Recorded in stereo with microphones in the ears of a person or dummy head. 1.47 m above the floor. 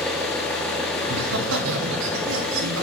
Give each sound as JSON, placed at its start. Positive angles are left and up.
{"t": 0.0, "sound": "an engine running", "side_deg": 5, "distance_m": 1.2}
{"t": 1.0, "sound": "laughter", "side_deg": -75, "distance_m": 1.5}